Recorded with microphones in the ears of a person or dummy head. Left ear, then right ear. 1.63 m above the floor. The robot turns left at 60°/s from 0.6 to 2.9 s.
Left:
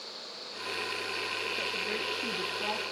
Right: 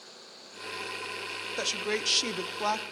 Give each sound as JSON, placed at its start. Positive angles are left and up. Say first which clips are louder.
{"t": 1.6, "sound": "a woman speaking", "louder": "right 2 dB", "azimuth_deg": -55, "distance_m": 1.0}